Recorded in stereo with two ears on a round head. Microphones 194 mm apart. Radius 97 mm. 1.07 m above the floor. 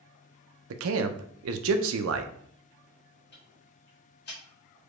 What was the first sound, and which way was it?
A man speaking, 70° right (ahead or behind).